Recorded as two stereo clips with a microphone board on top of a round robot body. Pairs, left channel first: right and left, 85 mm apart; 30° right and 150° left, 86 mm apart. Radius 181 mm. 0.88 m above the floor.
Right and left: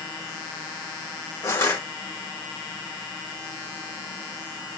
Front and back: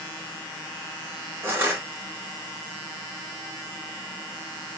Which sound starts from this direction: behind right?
Crushing, at 1.4 s.